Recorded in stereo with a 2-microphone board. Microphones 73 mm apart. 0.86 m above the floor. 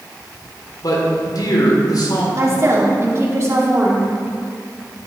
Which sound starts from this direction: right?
A woman speaking, at 2.4 s.